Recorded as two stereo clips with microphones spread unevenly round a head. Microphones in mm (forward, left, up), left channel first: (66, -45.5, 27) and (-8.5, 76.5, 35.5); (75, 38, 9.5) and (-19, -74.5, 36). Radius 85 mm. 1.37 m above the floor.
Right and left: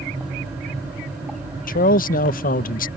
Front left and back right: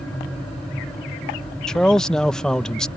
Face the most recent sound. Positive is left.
turn(degrees=-35)